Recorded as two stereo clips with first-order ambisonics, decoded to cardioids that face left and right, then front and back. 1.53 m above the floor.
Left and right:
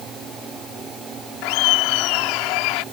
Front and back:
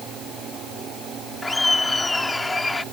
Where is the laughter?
80° left.